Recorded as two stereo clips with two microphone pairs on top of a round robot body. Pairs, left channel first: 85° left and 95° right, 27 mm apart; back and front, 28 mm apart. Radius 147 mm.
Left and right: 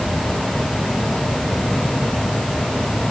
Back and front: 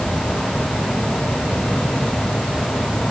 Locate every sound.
Only background noise.